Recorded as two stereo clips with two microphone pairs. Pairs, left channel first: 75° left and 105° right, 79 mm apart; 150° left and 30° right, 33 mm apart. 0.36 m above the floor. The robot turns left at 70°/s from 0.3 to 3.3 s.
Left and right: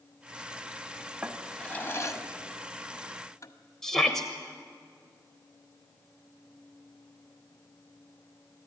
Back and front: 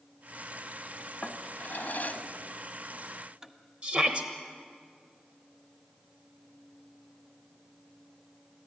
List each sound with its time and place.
1.2 s a drawer: straight behind, 1.4 m; by 3.5 s 35° left, 1.4 m
3.8 s a shout: 5° right, 1.1 m